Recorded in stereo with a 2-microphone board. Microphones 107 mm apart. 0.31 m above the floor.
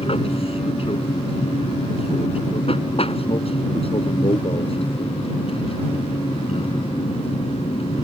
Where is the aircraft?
60° left (ahead or behind); by 8.1 s 65° left (ahead or behind).